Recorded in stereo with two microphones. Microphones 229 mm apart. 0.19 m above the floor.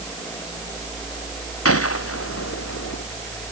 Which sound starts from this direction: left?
A gunshot, at 1.6 s.